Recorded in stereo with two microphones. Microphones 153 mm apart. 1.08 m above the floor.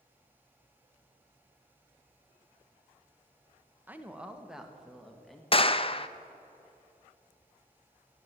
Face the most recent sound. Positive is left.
turn(degrees=35)  # may be behind; listen again after turning